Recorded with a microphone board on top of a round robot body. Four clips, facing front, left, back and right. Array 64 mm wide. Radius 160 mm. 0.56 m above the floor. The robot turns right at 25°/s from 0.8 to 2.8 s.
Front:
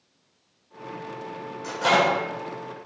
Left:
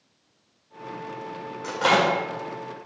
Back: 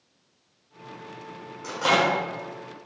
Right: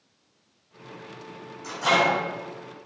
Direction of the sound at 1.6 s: 80° left.